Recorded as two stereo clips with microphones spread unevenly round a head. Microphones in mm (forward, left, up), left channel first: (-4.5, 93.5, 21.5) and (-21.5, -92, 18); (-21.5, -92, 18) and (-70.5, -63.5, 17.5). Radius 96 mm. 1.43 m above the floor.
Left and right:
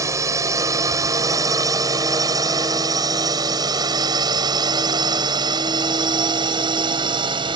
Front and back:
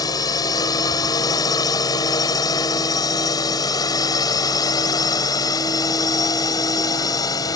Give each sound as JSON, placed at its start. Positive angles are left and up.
{"t": 0.0, "sound": "a drone", "azimuth_deg": -20}